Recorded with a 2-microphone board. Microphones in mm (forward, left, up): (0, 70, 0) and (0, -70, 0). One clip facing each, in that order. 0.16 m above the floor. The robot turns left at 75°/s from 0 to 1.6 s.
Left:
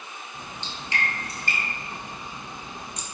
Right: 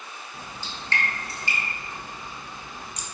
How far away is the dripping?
About 1.1 m.